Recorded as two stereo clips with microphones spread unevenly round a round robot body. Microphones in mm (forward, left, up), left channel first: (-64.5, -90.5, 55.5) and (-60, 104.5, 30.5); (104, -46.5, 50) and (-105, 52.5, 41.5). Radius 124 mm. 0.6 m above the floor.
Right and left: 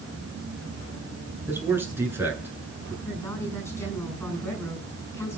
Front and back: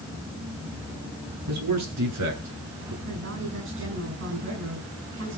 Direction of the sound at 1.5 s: 165° left.